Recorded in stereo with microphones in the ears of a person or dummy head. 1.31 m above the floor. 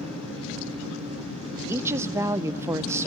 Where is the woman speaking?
15° right (ahead or behind), 0.5 m.